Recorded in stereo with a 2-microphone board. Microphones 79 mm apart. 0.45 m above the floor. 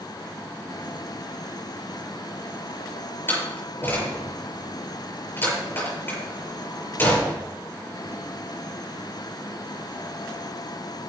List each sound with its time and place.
3.3 s a door slam: 30° left (ahead or behind), 6 m